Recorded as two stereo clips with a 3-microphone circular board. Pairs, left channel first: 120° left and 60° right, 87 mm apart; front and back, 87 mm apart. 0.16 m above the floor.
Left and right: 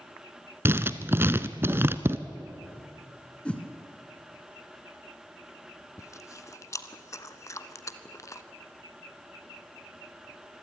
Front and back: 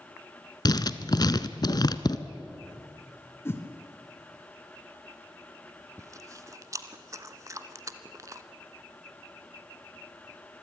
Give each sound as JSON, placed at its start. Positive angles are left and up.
{"t": 0.7, "sound": "writing", "azimuth_deg": -5, "distance_m": 0.8}
{"t": 3.5, "sound": "a whoosh", "azimuth_deg": 45, "distance_m": 1.9}
{"t": 6.0, "sound": "chewing", "azimuth_deg": 150, "distance_m": 1.1}